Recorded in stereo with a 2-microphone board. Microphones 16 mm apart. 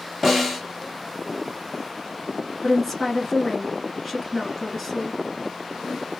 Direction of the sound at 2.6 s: 10° left (ahead or behind).